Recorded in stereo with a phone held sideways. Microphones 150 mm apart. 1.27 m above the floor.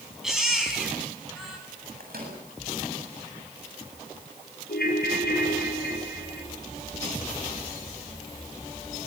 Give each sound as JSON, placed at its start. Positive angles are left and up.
{"t": 0.2, "sound": "a baby crying", "side_deg": -5, "distance_m": 6.5}
{"t": 2.0, "sound": "a microwave", "side_deg": -75, "distance_m": 8.0}
{"t": 4.7, "sound": "a ringtone", "side_deg": 80, "distance_m": 4.5}